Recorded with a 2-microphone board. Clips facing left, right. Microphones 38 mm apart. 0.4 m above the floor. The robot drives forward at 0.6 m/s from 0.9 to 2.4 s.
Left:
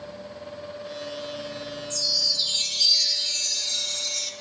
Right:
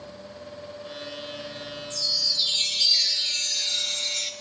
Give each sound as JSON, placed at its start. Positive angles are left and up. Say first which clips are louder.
{"t": 1.9, "sound": "a chime", "louder": "even", "side_deg": -25, "distance_m": 0.6}